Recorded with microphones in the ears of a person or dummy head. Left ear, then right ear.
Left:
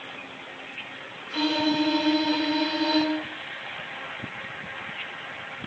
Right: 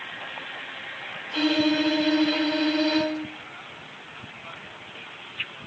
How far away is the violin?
About 0.8 m.